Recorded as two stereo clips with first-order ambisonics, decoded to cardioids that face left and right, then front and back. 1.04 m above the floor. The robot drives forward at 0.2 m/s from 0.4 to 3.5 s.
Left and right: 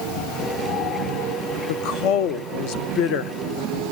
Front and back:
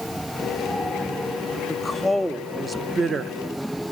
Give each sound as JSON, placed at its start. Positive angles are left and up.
{"t": 1.7, "sound": "a woman speaking", "azimuth_deg": 75, "distance_m": 0.6}